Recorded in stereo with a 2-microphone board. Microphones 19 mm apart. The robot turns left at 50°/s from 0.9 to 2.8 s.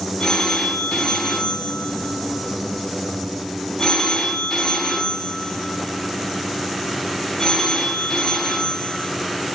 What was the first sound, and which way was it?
A phone ringing, 135° left.